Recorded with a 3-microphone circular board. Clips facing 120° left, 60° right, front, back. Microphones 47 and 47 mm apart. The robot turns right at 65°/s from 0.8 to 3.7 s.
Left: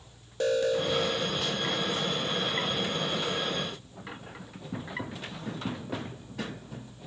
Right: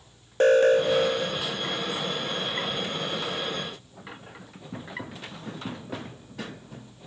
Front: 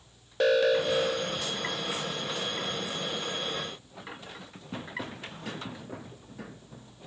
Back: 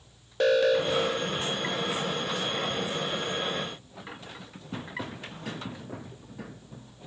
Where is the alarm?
90° right, 0.8 m; by 1.4 s 50° right, 0.8 m.